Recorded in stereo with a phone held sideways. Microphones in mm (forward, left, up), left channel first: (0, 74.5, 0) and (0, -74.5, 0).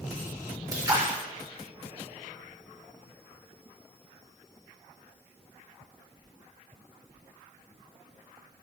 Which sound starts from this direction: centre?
A splash, at 0.7 s.